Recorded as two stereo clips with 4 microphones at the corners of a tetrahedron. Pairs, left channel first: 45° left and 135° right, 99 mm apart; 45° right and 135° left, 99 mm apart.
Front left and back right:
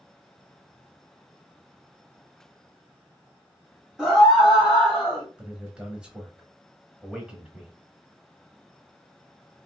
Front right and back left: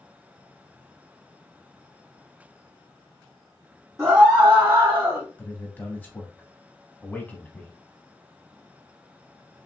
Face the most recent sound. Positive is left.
turn(degrees=-75)